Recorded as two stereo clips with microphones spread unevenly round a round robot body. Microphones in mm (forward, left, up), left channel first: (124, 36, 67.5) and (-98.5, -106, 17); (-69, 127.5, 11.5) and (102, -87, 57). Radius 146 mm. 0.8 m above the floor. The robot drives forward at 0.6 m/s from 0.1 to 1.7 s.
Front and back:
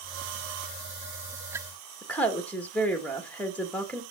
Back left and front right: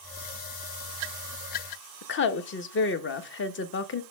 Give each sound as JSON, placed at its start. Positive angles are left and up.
{"t": 2.0, "sound": "a woman speaking", "azimuth_deg": 125, "distance_m": 0.9}